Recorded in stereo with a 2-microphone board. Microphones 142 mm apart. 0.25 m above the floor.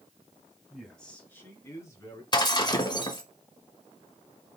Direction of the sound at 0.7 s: 5° right (ahead or behind).